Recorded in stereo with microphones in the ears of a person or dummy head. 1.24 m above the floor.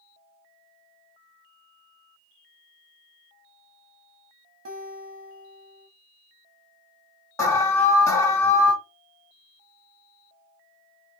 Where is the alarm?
15° left (ahead or behind), 1.6 m.